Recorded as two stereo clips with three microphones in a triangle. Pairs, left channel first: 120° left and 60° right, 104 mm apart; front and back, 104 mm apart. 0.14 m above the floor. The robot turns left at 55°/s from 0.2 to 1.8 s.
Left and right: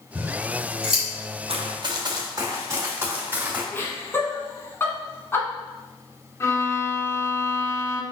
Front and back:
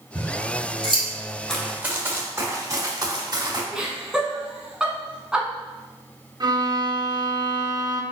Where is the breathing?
I don't hear breathing.